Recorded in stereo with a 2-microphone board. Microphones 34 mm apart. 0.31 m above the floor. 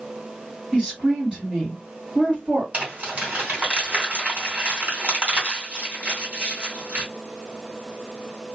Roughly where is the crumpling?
Right.